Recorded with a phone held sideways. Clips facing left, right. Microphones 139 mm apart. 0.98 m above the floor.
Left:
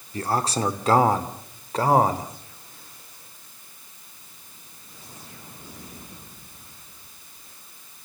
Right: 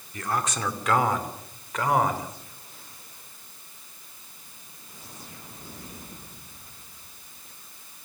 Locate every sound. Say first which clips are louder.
0.1 s a man speaking: left 4 dB; 35° left (ahead or behind), 2.5 m